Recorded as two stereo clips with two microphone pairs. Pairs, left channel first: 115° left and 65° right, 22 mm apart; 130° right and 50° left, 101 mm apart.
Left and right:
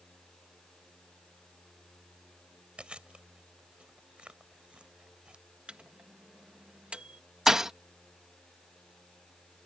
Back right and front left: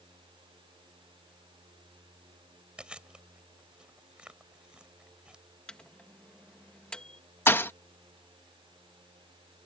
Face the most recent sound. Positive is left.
turn(degrees=-90)